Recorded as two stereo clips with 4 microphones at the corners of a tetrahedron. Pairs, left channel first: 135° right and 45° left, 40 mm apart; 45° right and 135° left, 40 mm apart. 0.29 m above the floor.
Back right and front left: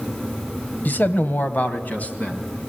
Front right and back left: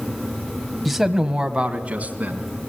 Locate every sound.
0.8 s a man speaking: 135° right, 1.2 m; by 2.5 s 175° left, 2.5 m